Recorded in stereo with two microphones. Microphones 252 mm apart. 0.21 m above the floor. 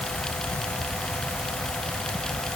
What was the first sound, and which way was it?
Only background noise.